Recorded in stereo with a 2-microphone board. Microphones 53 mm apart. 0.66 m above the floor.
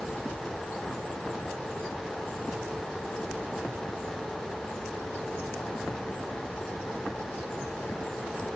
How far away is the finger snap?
No finger snap in this recording.